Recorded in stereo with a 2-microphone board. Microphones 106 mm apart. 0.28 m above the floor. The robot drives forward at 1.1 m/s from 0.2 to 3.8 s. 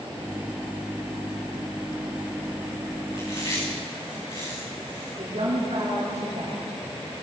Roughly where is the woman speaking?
Right.